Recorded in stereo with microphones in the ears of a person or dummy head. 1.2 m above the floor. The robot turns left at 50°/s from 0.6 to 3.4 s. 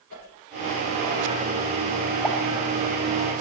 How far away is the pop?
About 7.5 m.